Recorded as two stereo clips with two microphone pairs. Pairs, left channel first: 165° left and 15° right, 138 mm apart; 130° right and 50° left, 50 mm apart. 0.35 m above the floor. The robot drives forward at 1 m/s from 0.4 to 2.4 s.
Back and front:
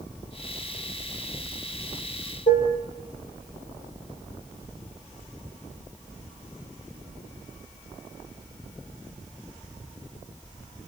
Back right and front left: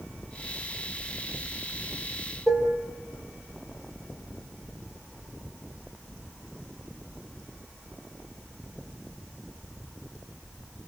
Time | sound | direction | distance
2.5 | dishes clattering | 145° left | 5 m